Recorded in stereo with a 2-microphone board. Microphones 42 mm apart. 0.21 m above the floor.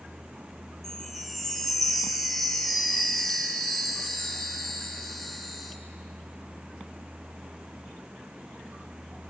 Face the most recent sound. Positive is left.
turn(degrees=0)  # may be behind; listen again after turning